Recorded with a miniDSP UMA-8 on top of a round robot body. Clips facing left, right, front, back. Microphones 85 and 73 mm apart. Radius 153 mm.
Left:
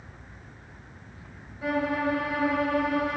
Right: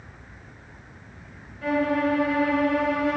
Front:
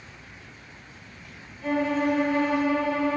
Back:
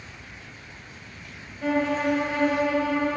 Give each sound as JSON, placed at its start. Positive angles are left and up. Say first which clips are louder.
{"t": 1.6, "sound": "a violin", "louder": "right 4 dB, back 1 dB", "azimuth_deg": 165, "distance_m": 4.5}